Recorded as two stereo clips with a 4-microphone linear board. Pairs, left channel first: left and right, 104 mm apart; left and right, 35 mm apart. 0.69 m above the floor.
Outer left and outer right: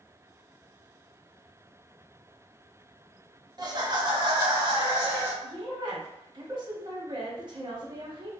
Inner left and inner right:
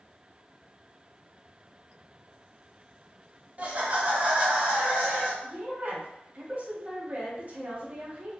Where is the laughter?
35° right (ahead or behind), 0.6 m.